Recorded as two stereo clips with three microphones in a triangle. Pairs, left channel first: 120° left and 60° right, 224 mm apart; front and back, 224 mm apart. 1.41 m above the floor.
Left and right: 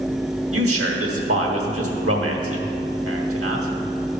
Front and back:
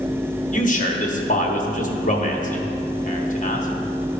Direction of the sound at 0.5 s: 55° right.